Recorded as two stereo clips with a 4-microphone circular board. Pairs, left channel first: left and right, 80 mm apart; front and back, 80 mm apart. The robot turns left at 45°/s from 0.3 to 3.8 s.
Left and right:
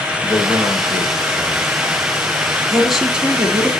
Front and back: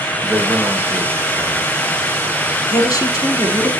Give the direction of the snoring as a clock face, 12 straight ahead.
I don't hear snoring.